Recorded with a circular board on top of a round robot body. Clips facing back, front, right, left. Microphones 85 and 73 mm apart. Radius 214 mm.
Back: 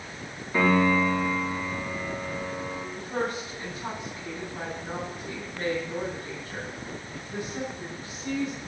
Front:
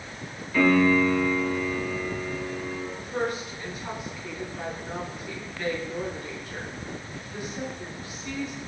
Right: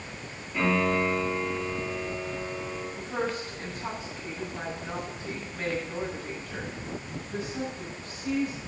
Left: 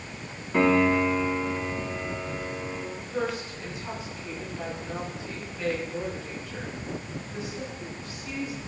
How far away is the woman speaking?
About 5.5 m.